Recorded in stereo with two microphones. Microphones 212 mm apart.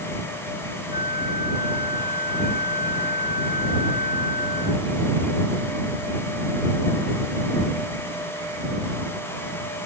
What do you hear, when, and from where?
0.9 s a flute: 40° left (ahead or behind)